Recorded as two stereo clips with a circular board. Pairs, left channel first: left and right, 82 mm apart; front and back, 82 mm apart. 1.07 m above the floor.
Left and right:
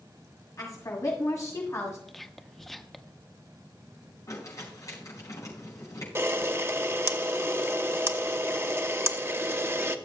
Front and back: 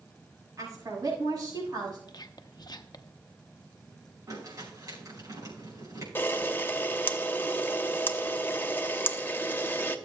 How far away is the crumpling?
About 6 m.